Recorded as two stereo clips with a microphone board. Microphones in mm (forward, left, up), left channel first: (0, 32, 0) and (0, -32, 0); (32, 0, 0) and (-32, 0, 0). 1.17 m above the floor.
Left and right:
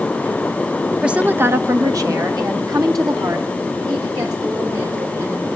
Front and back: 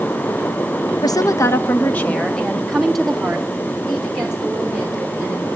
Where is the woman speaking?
10° right, 1.0 m; by 5.5 s 105° right, 4.5 m.